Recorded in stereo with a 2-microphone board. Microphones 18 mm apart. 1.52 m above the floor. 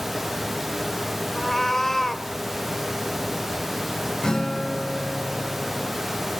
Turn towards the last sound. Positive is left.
turn(degrees=55)  # may be behind; listen again after turning